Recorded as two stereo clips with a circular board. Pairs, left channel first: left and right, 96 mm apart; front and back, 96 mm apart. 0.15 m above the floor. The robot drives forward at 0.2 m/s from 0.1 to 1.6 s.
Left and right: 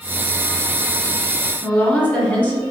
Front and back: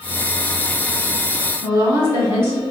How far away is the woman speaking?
About 1.6 m.